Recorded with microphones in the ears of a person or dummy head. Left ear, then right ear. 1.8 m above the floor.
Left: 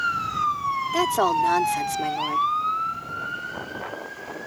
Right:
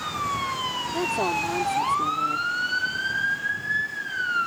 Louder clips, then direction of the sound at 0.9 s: Left 5 dB; 55° left (ahead or behind).